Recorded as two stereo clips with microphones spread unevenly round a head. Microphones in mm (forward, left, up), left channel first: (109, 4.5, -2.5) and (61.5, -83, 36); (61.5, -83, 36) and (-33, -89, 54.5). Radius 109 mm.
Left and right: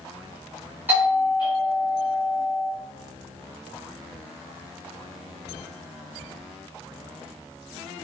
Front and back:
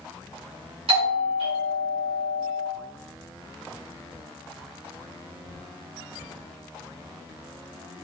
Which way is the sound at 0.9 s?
155° left.